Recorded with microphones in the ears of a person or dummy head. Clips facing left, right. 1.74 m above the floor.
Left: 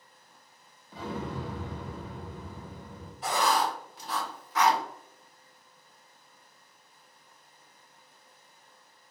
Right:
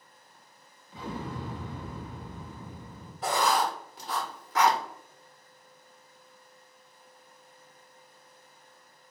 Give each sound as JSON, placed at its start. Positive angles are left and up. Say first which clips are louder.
{"t": 0.9, "sound": "an explosion", "louder": "left 2 dB", "side_deg": 35, "distance_m": 1.5}
{"t": 3.2, "sound": "writing", "louder": "right 1 dB", "side_deg": -50, "distance_m": 0.8}